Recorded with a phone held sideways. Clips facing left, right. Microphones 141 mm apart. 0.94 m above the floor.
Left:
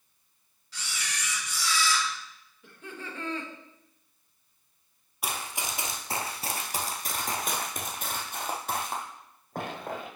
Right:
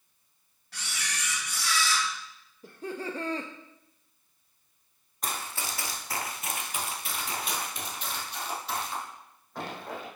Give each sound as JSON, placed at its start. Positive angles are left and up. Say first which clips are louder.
{"t": 0.7, "sound": "a camera shutter", "louder": "even", "side_deg": -60, "distance_m": 2.0}
{"t": 2.6, "sound": "laughter", "louder": "right 7 dB", "side_deg": -35, "distance_m": 0.6}
{"t": 5.2, "sound": "running footsteps", "louder": "left 1 dB", "side_deg": 10, "distance_m": 1.1}